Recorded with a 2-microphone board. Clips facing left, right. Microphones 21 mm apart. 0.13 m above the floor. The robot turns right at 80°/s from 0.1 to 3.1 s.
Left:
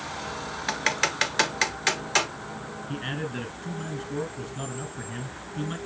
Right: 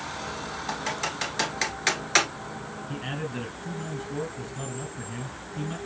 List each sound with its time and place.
0.7 s typing on a keyboard: 50° left (ahead or behind), 1.1 m; by 2.3 s 30° right (ahead or behind), 1.1 m
2.9 s a man speaking: 20° left (ahead or behind), 1.8 m; by 5.8 s 15° left (ahead or behind), 1.8 m